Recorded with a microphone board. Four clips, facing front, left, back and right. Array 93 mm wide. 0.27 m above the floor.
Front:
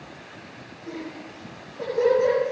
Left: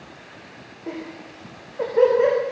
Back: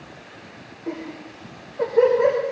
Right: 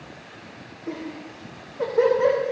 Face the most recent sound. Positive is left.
turn(degrees=125)